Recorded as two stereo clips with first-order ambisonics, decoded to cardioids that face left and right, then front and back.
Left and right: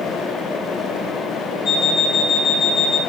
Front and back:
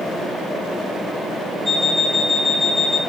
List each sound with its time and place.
1.6 s an alarm clock: 140° left, 1.5 m